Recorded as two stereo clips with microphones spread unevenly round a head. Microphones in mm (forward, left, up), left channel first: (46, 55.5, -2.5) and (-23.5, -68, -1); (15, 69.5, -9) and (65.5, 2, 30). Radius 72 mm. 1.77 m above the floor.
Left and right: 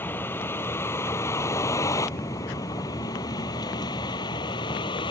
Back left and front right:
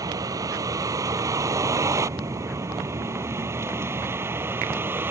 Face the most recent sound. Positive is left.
turn(degrees=5)